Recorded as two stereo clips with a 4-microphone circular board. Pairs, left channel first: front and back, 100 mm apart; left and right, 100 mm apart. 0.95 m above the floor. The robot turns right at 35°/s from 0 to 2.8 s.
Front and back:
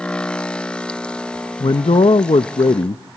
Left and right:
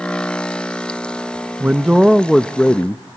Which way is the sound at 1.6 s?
20° right.